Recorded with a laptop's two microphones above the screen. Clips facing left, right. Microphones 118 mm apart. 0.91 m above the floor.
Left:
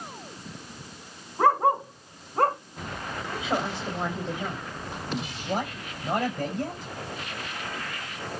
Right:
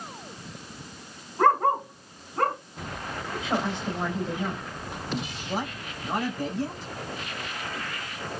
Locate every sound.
1.4 s a dog barking: 10° left (ahead or behind), 1.9 m; by 2.6 s 35° left (ahead or behind), 2 m
3.3 s a woman speaking: 15° left (ahead or behind), 4 m
5.4 s a man speaking: 55° left (ahead or behind), 5 m